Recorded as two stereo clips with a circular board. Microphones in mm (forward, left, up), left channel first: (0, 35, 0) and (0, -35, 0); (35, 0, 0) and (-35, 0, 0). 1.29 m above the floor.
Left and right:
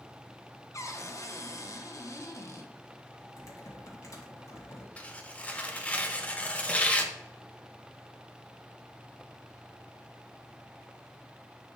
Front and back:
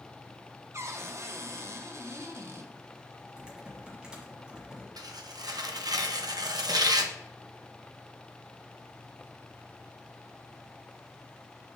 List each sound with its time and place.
0.7 s a cupboard door: 135° left, 0.7 m
3.4 s typing on a keyboard: 105° left, 1.8 m
5.0 s tearing paper: 160° left, 0.7 m